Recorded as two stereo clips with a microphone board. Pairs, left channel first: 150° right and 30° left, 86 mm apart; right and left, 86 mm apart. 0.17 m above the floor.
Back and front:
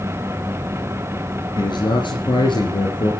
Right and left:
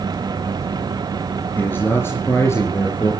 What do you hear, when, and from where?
1.6 s a man speaking: 155° right, 3 m; by 3.1 s 145° right, 4 m